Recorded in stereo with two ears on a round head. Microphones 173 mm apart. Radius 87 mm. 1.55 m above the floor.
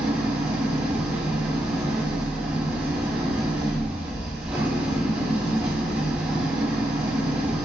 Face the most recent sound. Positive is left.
turn(degrees=-5)  # may be behind; listen again after turning